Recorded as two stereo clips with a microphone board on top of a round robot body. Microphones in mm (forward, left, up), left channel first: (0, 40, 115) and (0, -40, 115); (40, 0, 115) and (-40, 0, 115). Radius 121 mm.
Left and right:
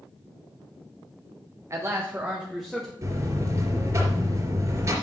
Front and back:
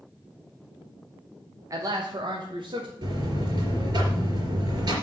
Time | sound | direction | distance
1.7 | a man speaking | 140° right | 1.3 m
3.0 | a buzzer | 145° right | 3.5 m